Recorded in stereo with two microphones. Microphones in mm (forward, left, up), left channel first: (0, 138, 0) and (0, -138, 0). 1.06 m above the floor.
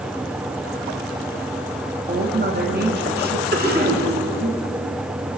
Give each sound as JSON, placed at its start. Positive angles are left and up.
{"t": 2.1, "sound": "a woman speaking", "side_deg": -35, "distance_m": 2.5}
{"t": 3.5, "sound": "a cough", "side_deg": -35, "distance_m": 5.0}